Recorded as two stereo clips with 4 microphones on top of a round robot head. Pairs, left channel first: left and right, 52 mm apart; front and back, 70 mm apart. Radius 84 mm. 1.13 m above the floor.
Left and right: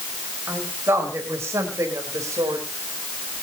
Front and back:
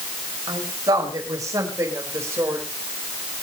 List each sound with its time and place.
0.5 s a woman speaking: 145° right, 6 m; by 2.7 s 120° right, 5 m